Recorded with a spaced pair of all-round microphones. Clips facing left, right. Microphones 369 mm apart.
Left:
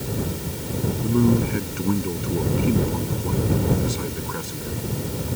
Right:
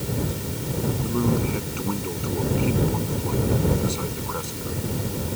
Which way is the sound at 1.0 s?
30° left (ahead or behind).